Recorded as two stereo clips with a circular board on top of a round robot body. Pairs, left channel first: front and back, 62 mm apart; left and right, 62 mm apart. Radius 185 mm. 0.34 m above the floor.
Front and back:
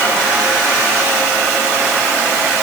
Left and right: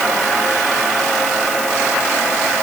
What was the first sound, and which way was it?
Only background noise.